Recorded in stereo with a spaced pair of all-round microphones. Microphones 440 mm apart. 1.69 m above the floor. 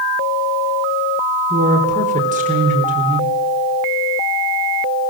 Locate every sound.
1.5 s a woman speaking: 15° right (ahead or behind), 4.5 m